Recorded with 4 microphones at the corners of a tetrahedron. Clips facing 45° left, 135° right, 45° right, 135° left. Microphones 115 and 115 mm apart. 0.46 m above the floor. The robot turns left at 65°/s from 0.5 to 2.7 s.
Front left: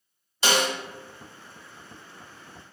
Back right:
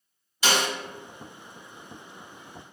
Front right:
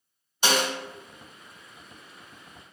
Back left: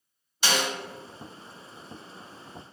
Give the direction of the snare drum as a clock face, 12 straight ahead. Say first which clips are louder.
Front left 1 dB, front right 3 dB; 12 o'clock.